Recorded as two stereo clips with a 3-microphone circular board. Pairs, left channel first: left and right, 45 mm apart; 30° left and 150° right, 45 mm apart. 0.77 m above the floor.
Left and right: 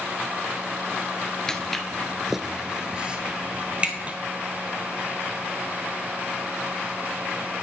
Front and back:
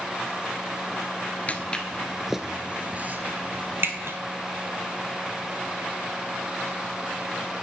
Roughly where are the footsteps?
Ahead left.